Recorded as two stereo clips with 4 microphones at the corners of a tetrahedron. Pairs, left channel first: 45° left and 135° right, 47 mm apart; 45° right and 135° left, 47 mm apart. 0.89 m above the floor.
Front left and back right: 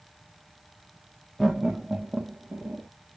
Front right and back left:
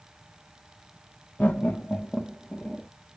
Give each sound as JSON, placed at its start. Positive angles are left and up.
{"t": 1.4, "sound": "laughter", "azimuth_deg": -45, "distance_m": 0.6}